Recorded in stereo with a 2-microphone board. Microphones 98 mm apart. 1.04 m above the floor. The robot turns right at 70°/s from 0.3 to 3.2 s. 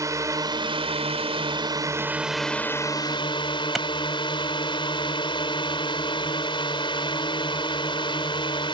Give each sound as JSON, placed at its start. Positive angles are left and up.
{"t": 0.0, "sound": "a drone", "azimuth_deg": -145}
{"t": 3.8, "sound": "a clap", "side_deg": 0}